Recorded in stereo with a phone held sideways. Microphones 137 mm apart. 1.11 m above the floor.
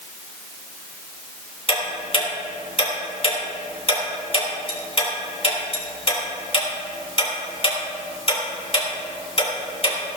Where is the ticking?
45° left (ahead or behind), 3 m.